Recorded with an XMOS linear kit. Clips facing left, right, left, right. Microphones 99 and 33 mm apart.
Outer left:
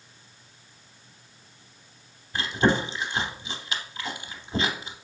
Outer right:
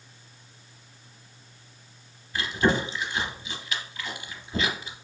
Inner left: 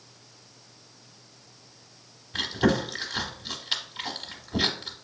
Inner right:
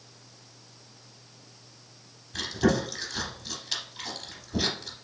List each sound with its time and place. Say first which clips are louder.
2.3 s chewing: outer left 1 dB, inner left 1 dB; 30° left (ahead or behind), 0.8 m